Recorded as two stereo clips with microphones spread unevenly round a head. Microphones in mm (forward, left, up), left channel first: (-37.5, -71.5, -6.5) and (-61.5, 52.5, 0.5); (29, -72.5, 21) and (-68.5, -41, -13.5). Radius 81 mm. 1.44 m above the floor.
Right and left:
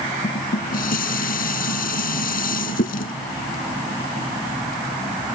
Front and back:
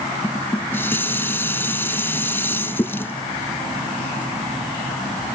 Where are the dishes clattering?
85° right.